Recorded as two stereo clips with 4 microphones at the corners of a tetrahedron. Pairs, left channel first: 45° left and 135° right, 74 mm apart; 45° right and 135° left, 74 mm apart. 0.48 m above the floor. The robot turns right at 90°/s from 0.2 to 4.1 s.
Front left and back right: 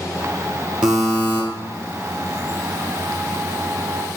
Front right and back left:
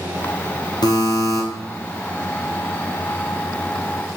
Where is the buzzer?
60° right, 2 m; by 1.4 s 5° right, 2 m.